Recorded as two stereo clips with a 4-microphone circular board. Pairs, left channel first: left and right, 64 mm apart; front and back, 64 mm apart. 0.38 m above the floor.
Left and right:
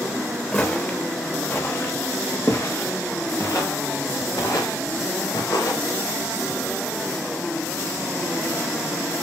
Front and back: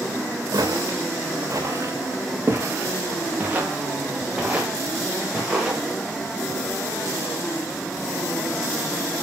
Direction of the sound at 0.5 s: 160° left.